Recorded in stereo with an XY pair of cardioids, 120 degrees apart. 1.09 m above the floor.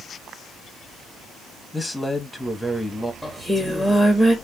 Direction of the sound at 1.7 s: 5° left.